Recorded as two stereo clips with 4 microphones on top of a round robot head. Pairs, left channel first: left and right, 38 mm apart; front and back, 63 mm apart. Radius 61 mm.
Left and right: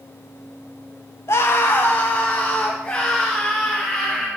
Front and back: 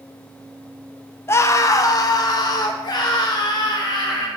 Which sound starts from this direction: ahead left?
A scream, at 1.3 s.